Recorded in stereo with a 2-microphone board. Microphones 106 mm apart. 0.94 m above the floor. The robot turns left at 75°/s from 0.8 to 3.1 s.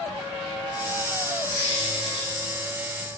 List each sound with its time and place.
1.5 s a squeak: 130° right, 2.5 m; by 2.3 s 170° left, 2.5 m